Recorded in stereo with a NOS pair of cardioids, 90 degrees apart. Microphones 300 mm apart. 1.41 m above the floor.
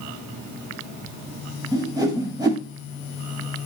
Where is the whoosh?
10° right, 5.5 m.